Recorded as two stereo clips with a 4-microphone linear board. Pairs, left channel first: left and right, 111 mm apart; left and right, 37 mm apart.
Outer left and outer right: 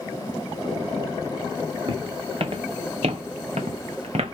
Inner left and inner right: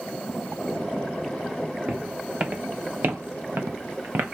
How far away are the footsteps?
About 1.4 m.